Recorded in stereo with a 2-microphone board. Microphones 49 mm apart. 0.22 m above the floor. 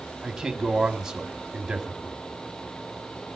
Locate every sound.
0.2 s a man speaking: 10° right (ahead or behind), 1.5 m